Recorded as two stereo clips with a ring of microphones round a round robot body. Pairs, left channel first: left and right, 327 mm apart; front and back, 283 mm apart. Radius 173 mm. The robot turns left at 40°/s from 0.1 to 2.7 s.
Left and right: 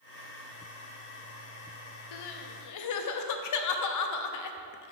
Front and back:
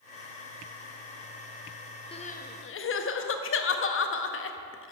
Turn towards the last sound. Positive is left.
turn(degrees=50)